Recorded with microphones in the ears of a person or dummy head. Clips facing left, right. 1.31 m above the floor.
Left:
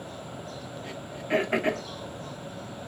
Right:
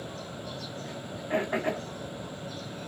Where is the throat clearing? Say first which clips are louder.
Left 4 dB; 25° left (ahead or behind), 0.5 m.